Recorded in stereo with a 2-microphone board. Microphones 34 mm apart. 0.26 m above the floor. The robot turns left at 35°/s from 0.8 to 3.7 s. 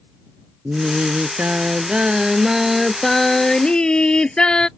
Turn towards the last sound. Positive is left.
turn(degrees=155)